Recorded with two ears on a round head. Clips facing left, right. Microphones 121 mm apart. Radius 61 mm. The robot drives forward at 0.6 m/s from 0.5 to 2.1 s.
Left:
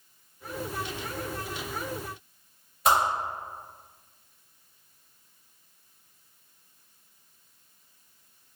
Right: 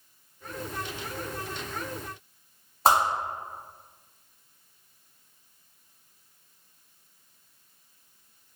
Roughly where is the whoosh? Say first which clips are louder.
Right 2 dB; right.